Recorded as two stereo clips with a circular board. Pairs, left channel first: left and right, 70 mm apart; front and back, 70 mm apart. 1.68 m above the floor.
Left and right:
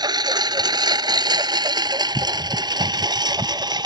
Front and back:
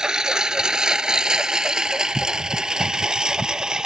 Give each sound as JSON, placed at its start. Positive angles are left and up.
{"t": 0.0, "sound": "a lawn mower", "azimuth_deg": -100}